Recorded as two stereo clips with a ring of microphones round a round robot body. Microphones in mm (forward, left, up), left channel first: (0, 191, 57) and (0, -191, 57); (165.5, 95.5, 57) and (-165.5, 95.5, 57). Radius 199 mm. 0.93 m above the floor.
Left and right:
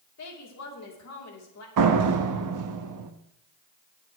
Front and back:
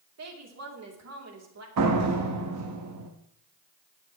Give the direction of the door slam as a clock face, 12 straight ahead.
4 o'clock.